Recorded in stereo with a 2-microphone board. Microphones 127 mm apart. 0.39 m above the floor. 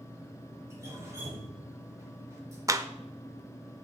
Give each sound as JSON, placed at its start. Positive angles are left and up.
{"t": 0.7, "sound": "dripping", "side_deg": -20, "distance_m": 4.0}
{"t": 2.7, "sound": "a clap", "side_deg": -25, "distance_m": 0.6}